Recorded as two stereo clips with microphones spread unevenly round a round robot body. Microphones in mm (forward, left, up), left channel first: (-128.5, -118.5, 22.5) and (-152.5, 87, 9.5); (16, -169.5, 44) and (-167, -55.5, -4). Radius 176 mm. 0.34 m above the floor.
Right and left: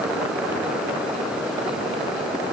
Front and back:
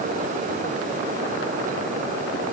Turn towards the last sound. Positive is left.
No sound to turn to.